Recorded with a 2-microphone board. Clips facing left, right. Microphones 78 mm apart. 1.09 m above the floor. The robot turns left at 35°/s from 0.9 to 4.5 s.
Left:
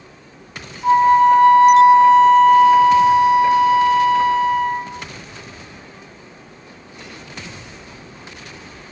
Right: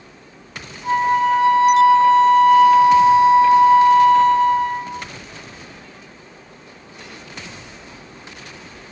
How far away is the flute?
About 0.8 m.